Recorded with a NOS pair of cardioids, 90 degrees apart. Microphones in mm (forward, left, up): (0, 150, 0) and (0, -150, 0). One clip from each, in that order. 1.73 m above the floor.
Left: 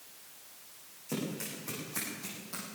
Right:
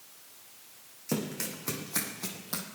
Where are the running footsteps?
60° right, 6.5 m; by 2.6 s 65° right, 5 m.